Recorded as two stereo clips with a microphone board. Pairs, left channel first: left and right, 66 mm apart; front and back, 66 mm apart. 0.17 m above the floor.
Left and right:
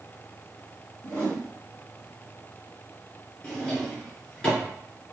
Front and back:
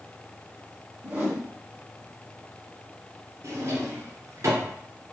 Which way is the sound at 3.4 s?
165° left.